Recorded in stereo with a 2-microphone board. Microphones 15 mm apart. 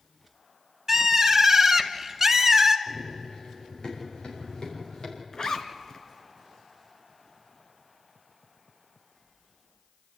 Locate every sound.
0.9 s a bird: 25° right (ahead or behind), 1.0 m
2.9 s running footsteps: 45° left (ahead or behind), 6.5 m; by 5.2 s 55° left (ahead or behind), 6 m
5.3 s a zipper: 45° left (ahead or behind), 1.5 m